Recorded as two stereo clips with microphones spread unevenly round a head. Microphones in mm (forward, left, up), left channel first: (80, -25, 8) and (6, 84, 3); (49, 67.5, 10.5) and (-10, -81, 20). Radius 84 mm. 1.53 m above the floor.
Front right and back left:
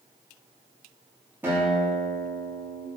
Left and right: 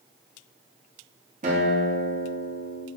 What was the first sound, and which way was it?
A guitar, 160° right.